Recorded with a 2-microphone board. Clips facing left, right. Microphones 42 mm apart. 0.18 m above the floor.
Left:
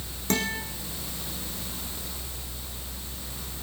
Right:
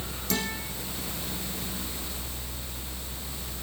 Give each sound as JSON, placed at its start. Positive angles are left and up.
{"t": 0.3, "sound": "a guitar", "side_deg": 50, "distance_m": 4.5}